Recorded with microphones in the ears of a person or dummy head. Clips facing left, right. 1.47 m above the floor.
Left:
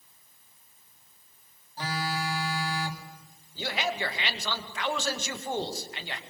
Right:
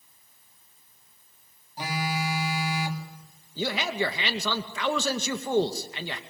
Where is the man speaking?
80° right, 2 m.